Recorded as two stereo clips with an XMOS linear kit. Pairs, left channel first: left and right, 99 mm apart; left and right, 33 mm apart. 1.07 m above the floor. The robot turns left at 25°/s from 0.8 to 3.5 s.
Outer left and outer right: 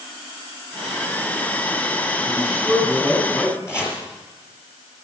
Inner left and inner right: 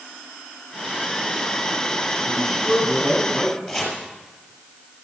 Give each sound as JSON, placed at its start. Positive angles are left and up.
{"t": 2.3, "sound": "a man speaking", "azimuth_deg": -170, "distance_m": 9.0}
{"t": 3.7, "sound": "chopping", "side_deg": 25, "distance_m": 6.0}